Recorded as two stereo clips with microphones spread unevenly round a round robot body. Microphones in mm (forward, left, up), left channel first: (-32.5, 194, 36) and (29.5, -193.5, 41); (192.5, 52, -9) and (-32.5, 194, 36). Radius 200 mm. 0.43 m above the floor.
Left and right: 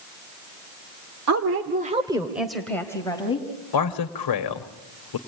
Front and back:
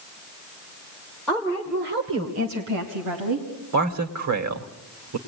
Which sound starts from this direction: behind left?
A man speaking, at 3.7 s.